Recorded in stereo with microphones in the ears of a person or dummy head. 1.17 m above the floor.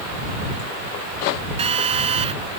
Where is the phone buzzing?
30° right (ahead or behind).